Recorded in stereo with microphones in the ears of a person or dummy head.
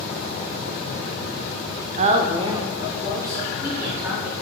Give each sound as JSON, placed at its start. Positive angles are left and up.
{"t": 2.0, "sound": "a woman speaking", "side_deg": -35, "distance_m": 0.8}